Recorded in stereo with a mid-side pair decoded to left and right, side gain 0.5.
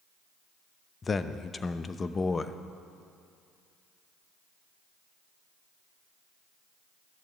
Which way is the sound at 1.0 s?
30° left.